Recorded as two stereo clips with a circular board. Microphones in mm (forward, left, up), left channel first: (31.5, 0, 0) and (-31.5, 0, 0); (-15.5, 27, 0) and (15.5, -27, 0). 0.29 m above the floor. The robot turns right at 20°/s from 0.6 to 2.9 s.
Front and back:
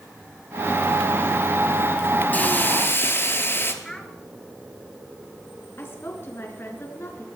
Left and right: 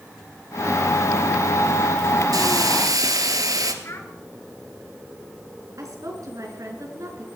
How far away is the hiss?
About 1.4 m.